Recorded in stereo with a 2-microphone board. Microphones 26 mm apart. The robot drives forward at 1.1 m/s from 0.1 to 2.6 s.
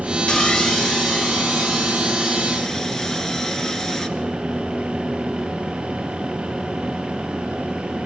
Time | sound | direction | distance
0.3 | sawing | 35° left (ahead or behind) | 0.6 m